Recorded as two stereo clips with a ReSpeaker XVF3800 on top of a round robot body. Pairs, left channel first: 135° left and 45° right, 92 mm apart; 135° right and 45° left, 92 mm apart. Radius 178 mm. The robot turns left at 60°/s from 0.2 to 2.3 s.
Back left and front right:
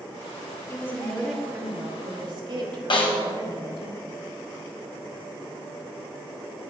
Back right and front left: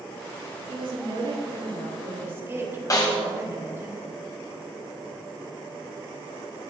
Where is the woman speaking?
80° left, 3 m; by 3.9 s 15° right, 3 m.